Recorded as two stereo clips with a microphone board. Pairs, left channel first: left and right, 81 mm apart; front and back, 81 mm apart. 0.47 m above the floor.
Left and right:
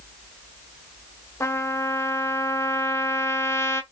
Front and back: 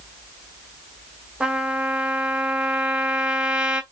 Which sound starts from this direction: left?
A trumpet, at 1.4 s.